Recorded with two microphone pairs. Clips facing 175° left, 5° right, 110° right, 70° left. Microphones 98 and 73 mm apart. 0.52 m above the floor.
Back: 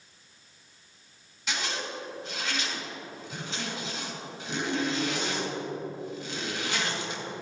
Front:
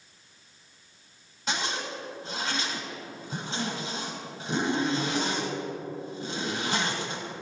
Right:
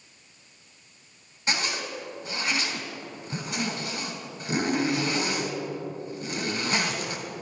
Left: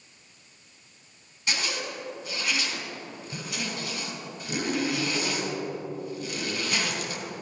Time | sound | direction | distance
1.5 | a zipper | 55° right | 2.5 m